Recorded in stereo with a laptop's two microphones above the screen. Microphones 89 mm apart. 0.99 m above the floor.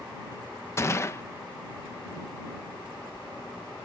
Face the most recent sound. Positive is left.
turn(degrees=30)  # may be behind; listen again after turning